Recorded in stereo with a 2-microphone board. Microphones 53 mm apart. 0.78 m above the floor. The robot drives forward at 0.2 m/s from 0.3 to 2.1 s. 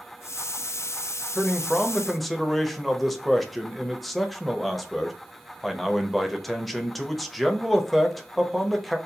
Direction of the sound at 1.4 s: Centre (ahead or behind).